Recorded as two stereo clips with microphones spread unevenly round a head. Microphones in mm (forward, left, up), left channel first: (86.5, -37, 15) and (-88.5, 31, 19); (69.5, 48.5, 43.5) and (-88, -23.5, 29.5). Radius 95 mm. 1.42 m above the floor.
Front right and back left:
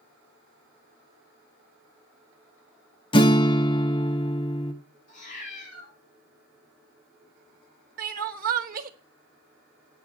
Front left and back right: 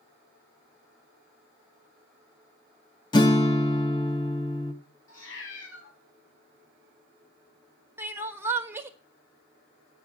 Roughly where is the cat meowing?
Ahead left.